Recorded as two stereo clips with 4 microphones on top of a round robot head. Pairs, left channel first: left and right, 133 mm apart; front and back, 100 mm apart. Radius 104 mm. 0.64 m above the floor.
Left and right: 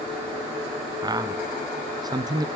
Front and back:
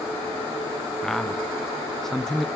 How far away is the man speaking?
About 0.6 m.